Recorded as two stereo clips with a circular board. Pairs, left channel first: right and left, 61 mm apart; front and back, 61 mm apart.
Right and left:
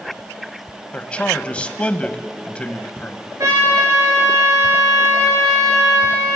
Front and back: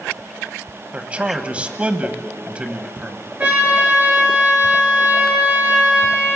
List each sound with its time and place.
0.9 s a man speaking: 140° right, 1.1 m
3.4 s a trumpet: 115° left, 4 m